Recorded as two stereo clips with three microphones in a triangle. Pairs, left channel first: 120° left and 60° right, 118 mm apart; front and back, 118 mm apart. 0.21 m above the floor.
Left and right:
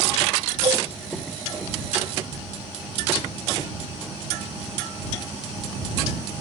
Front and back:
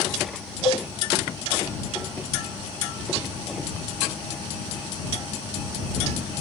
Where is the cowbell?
30° right.